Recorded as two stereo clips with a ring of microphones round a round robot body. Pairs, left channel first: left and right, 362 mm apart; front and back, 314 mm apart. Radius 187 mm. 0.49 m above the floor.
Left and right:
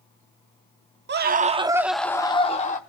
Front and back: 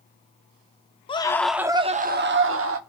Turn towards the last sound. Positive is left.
turn(degrees=155)